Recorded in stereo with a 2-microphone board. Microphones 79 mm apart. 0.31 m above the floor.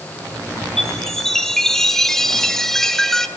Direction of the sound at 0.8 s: 5° left (ahead or behind).